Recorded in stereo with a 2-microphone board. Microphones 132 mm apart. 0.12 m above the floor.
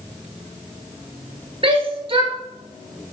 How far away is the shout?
About 1.8 m.